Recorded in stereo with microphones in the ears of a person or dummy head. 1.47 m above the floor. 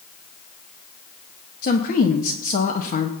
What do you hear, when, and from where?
1.6 s a woman speaking: 45° left (ahead or behind), 1.0 m